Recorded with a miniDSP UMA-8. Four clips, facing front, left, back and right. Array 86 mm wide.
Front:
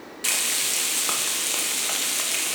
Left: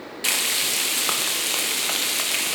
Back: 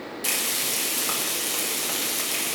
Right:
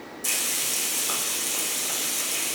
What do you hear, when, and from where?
0.2 s frying: 75° left, 0.9 m